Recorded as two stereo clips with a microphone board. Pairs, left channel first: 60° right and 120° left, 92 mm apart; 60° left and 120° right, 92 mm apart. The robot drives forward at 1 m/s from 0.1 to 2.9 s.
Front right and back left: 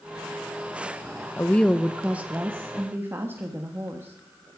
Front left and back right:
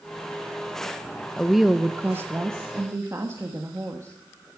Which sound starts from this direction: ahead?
A woman speaking, at 1.4 s.